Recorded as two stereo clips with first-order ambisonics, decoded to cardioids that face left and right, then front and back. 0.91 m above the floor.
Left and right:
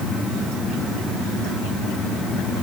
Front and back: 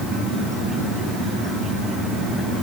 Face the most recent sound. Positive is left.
No sound to turn to.